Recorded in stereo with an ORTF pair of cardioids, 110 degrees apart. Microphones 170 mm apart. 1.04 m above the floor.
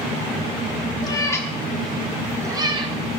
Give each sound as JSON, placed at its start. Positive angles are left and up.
{"t": 1.0, "sound": "a cat meowing", "azimuth_deg": 25, "distance_m": 1.2}